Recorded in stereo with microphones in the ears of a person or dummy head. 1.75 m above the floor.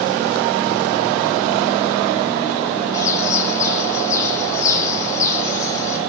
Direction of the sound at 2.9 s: 15° left (ahead or behind).